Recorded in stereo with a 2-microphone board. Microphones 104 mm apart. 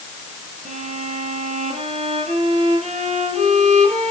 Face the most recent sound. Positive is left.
turn(degrees=-70)  # may be behind; listen again after turning